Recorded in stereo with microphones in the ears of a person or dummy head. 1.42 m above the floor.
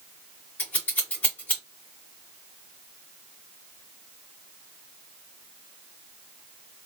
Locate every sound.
0.6 s scissors: 10° left (ahead or behind), 0.7 m